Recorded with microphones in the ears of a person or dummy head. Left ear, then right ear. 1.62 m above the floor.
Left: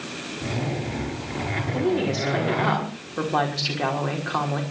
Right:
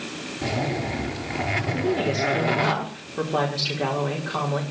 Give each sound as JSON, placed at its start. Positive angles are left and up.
{"t": 0.4, "sound": "a zipper", "side_deg": -40, "distance_m": 6.0}
{"t": 1.7, "sound": "a woman speaking", "side_deg": 20, "distance_m": 5.0}